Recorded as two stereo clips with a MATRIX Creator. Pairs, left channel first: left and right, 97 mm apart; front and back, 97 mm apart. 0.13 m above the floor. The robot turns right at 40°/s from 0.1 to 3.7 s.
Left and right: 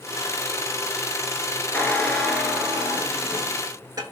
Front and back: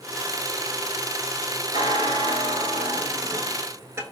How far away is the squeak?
About 0.6 m.